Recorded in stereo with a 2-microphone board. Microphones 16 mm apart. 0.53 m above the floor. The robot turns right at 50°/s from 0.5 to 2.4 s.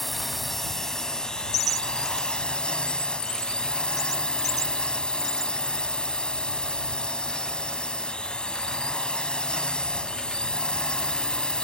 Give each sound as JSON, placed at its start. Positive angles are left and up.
{"t": 0.0, "sound": "a drone", "azimuth_deg": 5}